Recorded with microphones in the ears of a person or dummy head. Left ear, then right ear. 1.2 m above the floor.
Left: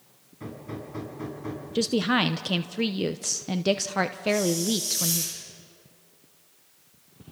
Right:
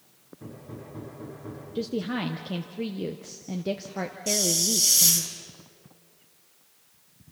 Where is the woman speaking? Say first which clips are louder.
Left 7 dB; 35° left (ahead or behind), 0.6 m.